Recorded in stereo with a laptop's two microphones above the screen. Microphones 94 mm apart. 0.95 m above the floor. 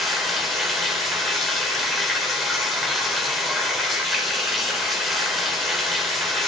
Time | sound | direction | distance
0.0 | running water | centre (ahead or behind) | 4 m